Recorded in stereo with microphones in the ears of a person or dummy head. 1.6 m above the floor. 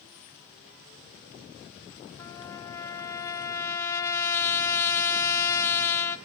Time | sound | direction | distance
2.2 | a trumpet | 15° left (ahead or behind) | 0.6 m